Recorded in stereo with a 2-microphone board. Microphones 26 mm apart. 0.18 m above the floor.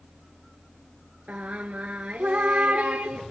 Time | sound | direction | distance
1.3 | singing | 70° right (ahead or behind) | 0.6 m